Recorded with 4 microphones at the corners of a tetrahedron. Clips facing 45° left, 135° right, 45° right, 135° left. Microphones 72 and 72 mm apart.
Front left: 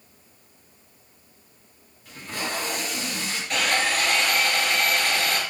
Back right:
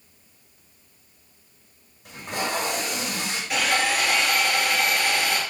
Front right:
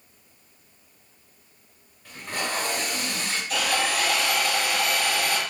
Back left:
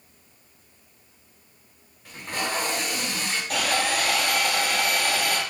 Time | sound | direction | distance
2.0 | tape being pulled | 150° right | 1.9 m
3.5 | sawing | 145° left | 1.4 m